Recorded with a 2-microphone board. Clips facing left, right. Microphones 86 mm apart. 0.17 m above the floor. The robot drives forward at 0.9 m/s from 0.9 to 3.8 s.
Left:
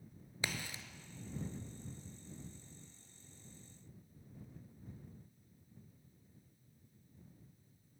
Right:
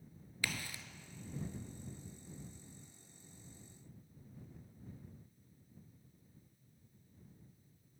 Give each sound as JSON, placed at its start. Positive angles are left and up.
{"t": 0.4, "sound": "a crack", "side_deg": 20, "distance_m": 0.6}